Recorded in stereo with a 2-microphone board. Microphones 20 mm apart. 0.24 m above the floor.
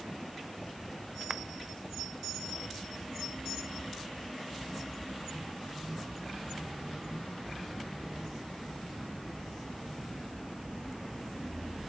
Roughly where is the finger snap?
Right.